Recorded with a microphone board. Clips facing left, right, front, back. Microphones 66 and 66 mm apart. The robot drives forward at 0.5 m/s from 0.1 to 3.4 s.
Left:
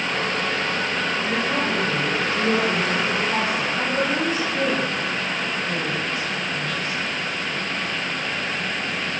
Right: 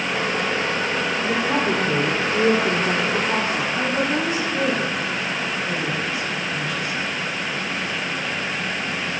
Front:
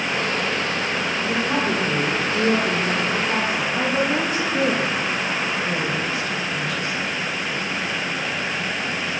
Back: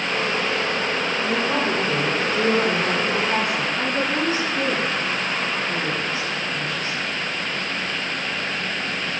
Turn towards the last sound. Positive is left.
turn(degrees=-10)